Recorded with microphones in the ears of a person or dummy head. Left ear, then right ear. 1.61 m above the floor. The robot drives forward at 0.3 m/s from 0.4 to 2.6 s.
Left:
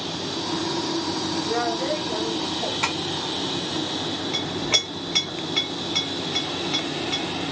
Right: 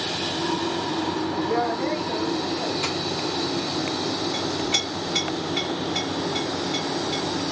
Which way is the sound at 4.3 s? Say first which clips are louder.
Left 4 dB; 35° left (ahead or behind).